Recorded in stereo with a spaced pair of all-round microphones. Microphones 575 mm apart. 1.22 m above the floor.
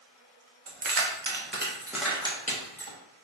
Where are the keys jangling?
60° right (ahead or behind), 0.7 m; by 3.0 s 25° left (ahead or behind), 1.0 m.